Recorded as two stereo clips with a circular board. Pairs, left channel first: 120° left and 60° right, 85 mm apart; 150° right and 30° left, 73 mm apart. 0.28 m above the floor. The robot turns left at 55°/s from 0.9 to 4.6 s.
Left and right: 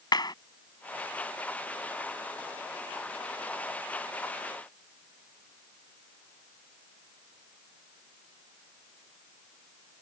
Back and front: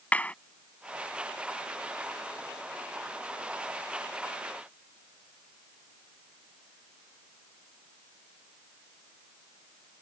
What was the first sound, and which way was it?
A clap, 145° left.